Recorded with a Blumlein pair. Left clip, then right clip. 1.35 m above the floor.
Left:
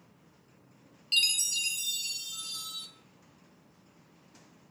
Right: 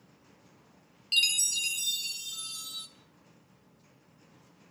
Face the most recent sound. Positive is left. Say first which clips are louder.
# right 1 dB
turn(degrees=0)